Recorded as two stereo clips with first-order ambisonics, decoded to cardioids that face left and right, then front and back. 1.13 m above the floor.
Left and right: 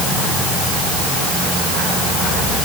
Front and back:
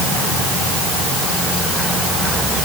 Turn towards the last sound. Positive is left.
No sound to turn to.